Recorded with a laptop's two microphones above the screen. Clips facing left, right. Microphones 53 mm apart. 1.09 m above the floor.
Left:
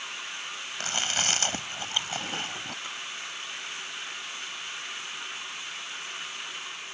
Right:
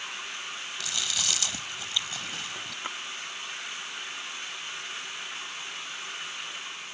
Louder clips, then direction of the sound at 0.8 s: Left 5 dB; 40° left (ahead or behind).